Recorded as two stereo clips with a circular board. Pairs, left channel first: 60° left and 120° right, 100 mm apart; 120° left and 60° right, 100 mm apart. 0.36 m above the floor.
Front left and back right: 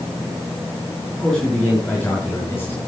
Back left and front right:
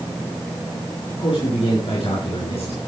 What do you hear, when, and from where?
1.2 s a man speaking: 145° left, 6 m; by 2.8 s 125° left, 6.5 m